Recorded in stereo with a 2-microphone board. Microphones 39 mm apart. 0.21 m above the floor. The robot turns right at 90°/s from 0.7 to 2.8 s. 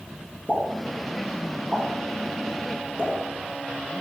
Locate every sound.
0.5 s a pop: 35° left (ahead or behind), 1.5 m; by 3.1 s 25° right (ahead or behind), 1.5 m